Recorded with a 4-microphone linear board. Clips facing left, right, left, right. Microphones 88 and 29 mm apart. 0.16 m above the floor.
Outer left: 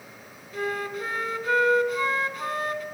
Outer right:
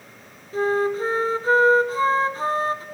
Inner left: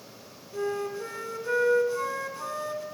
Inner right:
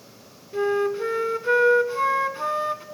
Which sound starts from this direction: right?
A flute, at 0.5 s.